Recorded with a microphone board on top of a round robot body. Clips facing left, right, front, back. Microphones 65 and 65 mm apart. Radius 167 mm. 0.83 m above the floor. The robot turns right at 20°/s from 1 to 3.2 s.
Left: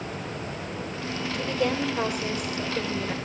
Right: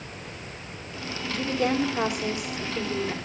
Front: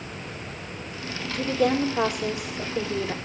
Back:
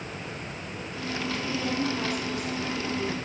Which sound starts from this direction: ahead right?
A woman speaking, at 1.3 s.